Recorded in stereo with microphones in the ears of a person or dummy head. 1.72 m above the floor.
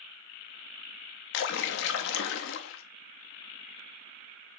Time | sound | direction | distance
1.3 | a splash | 65° left (ahead or behind) | 0.5 m